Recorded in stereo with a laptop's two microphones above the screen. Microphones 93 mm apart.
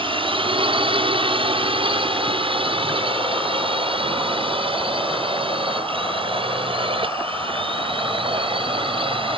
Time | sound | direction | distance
0.0 | a drone | 60° right (ahead or behind) | ?